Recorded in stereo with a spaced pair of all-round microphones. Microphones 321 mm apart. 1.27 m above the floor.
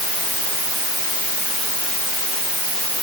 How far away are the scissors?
No scissors in this recording.